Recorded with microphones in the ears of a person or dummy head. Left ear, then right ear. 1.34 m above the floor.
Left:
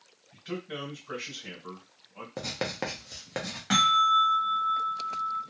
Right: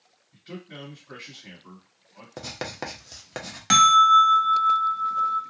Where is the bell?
70° right (ahead or behind), 0.6 m.